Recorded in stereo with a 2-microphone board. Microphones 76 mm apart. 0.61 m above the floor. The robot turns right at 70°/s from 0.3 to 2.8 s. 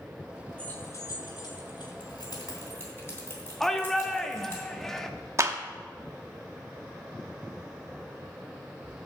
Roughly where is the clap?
Right.